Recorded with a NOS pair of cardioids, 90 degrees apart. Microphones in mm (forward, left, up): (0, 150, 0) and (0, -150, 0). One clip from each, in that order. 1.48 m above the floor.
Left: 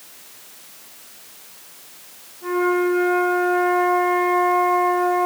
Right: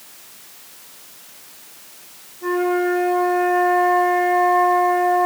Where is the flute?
20° right, 4.5 m.